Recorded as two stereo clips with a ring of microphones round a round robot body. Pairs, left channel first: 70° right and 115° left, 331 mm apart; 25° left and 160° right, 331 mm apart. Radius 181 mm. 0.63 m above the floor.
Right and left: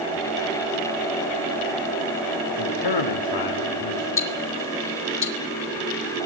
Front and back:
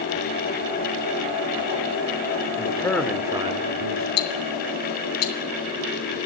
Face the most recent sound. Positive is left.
turn(degrees=-20)